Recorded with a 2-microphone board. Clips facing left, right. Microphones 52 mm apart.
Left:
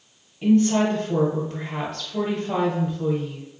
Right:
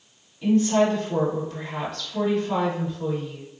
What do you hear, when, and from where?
0.4 s a woman speaking: 25° left (ahead or behind), 1.4 m